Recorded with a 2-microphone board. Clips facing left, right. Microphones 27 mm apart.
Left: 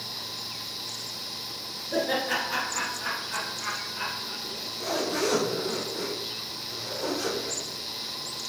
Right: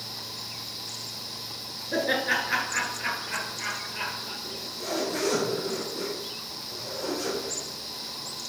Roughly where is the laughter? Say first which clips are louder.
Right 1 dB; right.